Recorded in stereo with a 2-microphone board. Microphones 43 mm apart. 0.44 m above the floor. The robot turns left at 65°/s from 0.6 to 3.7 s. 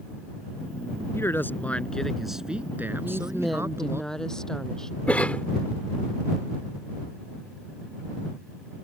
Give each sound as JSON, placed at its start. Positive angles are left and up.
{"t": 1.1, "sound": "a man speaking", "azimuth_deg": 70}
{"t": 3.0, "sound": "a woman speaking", "azimuth_deg": -150}
{"t": 5.1, "sound": "a cough", "side_deg": 35}